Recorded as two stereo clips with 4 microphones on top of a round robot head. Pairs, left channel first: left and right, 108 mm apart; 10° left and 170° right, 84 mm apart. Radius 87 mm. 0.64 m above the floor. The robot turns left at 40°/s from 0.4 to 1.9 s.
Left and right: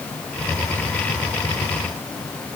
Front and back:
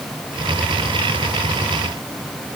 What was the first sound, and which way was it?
Only background noise.